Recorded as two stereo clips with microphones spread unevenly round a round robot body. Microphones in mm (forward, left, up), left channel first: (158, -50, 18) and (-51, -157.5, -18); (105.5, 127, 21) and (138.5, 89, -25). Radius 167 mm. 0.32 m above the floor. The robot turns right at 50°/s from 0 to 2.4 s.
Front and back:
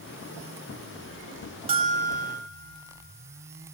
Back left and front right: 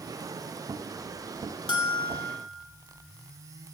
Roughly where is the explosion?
No explosion in this recording.